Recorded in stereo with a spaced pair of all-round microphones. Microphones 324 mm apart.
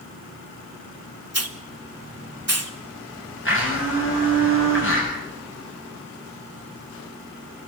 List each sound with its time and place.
1.3 s a hiss: 50° right (ahead or behind), 1.3 m
3.5 s a blender: 40° left (ahead or behind), 9.5 m